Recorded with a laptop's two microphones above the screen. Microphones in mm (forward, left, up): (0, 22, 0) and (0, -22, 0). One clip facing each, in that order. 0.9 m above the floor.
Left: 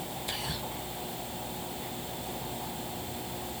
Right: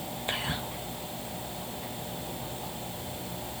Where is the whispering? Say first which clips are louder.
Right 6 dB; 30° right (ahead or behind), 0.6 m.